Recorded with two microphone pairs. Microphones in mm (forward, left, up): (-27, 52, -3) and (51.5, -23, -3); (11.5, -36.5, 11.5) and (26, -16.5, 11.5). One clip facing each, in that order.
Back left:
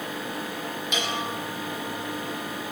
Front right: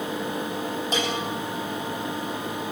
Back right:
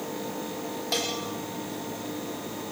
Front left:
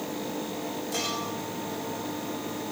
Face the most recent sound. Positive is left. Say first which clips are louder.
# front right 2 dB, back right 3 dB
turn(degrees=-95)